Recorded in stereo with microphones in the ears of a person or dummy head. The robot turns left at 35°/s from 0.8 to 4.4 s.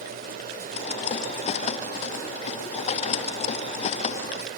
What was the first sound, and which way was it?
Only background noise.